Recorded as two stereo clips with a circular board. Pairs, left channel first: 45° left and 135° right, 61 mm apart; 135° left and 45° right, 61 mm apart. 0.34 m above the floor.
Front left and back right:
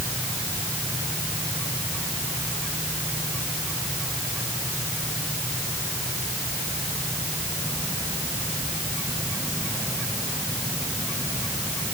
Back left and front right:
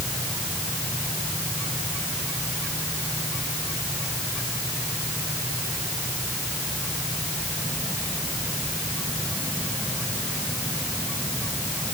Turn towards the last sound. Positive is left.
No sound to turn to.